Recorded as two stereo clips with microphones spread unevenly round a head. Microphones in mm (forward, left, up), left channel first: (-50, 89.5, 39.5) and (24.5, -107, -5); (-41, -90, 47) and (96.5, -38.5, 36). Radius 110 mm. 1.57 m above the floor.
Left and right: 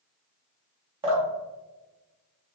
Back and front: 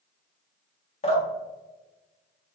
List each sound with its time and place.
1.0 s dripping: 140° right, 1.3 m